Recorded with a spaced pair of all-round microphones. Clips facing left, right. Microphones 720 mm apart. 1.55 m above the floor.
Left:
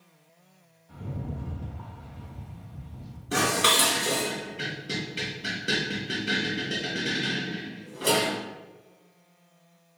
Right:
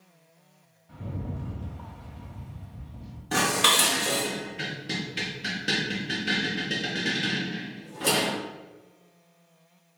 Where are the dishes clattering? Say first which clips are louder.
Left 1 dB; 30° right (ahead or behind), 0.7 m.